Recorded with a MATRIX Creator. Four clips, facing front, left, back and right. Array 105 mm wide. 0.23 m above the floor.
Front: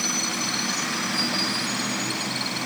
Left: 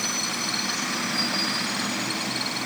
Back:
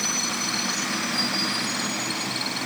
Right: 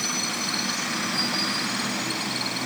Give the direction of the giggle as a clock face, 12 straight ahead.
I don't hear a giggle.